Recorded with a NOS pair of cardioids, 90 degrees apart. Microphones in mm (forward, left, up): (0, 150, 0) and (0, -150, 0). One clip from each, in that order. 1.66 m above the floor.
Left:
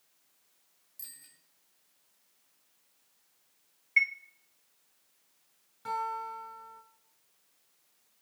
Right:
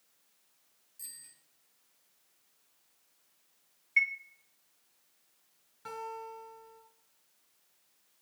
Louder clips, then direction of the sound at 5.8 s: Left 7 dB; 10° left.